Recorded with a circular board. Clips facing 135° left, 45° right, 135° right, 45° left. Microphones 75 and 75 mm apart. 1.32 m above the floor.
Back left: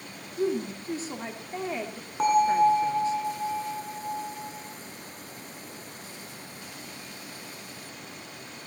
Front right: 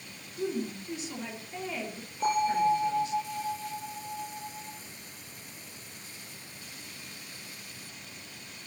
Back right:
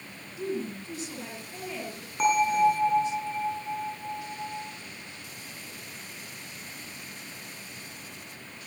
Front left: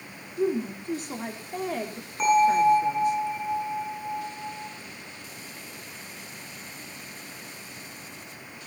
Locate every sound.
0.4 s a woman speaking: 80° left, 3.5 m
2.2 s a bell: 140° left, 8 m